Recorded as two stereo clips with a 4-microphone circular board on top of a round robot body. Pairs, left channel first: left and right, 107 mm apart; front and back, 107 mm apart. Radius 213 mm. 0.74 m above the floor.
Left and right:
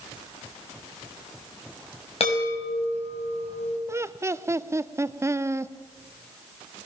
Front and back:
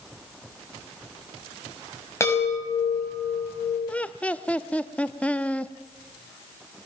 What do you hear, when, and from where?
2.2 s a chime: 65° left, 5.5 m
3.9 s laughter: 65° right, 1.0 m